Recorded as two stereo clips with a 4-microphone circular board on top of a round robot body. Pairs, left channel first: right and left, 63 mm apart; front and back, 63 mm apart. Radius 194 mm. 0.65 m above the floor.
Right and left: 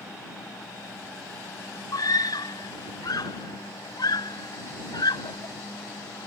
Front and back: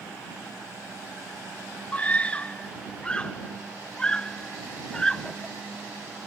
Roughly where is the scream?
Ahead right.